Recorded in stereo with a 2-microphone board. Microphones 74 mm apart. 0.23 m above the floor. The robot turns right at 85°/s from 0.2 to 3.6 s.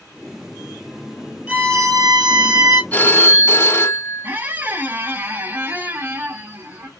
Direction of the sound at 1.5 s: 165° right.